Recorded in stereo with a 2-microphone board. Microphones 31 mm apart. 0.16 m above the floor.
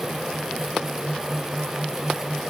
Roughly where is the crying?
I don't hear crying.